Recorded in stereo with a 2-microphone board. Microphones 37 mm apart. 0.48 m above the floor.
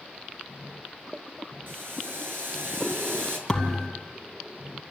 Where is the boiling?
70° right (ahead or behind), 6.5 m.